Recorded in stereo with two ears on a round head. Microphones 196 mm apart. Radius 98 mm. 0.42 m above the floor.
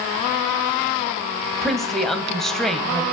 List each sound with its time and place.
1.6 s a woman speaking: centre (ahead or behind), 2.0 m